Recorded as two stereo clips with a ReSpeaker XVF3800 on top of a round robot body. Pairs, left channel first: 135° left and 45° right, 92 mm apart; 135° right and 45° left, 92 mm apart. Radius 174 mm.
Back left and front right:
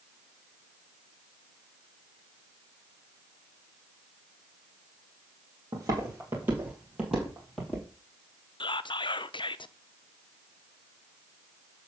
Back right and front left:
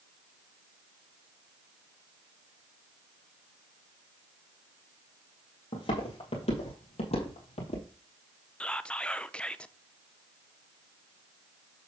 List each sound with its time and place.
5.7 s footsteps: 100° right, 1.9 m; by 7.9 s 140° right, 2.0 m
8.6 s whispering: 150° left, 0.6 m